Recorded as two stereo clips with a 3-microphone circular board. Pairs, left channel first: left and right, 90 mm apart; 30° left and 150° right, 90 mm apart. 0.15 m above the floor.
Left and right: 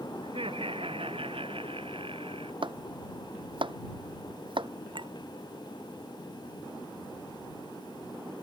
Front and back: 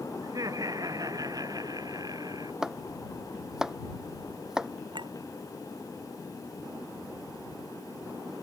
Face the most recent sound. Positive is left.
turn(degrees=-120)